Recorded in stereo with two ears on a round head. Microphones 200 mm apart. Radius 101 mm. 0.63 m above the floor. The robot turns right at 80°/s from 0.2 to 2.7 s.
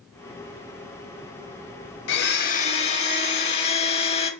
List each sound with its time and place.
2.1 s a blender: 95° left, 0.6 m; by 4.3 s 145° left, 0.6 m